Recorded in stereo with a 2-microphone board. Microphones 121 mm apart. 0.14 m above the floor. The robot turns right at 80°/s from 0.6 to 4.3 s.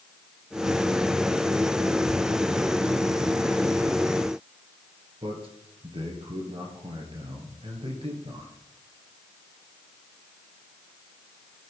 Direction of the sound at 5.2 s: 50° right (ahead or behind).